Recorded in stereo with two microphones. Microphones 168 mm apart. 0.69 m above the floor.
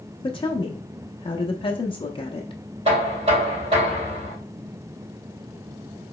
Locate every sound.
0.2 s a woman speaking: 30° left (ahead or behind), 0.5 m
2.9 s knocking: 40° right (ahead or behind), 2.5 m